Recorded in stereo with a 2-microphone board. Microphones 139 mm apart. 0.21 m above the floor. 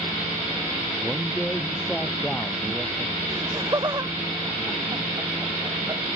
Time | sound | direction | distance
1.0 | a man speaking | 5° left (ahead or behind) | ?
3.3 | laughter | 25° right (ahead or behind) | ?